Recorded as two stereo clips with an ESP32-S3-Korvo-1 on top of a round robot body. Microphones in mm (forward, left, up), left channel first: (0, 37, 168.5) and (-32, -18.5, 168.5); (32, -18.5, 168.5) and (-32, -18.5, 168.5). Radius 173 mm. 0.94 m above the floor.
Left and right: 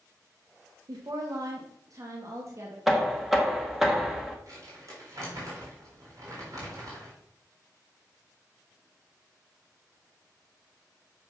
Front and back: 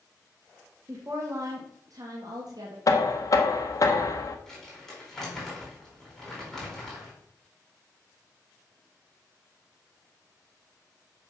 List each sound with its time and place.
0.9 s a woman speaking: 130° right, 1.6 m; by 2.8 s 165° right, 2 m
2.9 s knocking: 35° right, 1.4 m
4.5 s crumpling: 85° right, 4.5 m